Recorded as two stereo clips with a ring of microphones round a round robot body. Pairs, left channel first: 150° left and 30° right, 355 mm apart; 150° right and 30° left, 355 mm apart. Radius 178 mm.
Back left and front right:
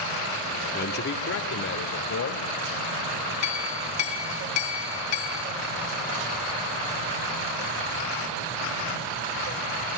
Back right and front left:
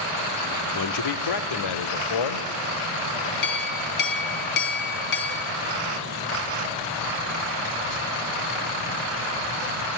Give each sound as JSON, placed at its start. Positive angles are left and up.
{"t": 0.7, "sound": "a man speaking", "azimuth_deg": -155, "distance_m": 1.6}
{"t": 3.4, "sound": "a clink", "azimuth_deg": 170, "distance_m": 5.0}